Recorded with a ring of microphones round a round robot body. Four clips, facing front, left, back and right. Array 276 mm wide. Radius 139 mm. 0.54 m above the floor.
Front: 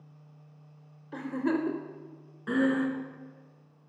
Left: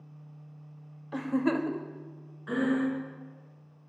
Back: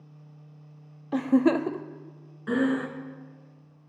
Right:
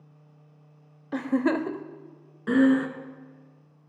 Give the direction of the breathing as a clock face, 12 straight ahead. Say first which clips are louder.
Right 7 dB, back 1 dB; 3 o'clock.